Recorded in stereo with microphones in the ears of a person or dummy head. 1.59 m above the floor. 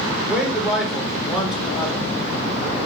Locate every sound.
0.2 s a man speaking: centre (ahead or behind), 0.9 m